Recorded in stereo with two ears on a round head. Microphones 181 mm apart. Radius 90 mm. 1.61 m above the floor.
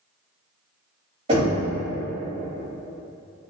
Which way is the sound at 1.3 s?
30° right (ahead or behind).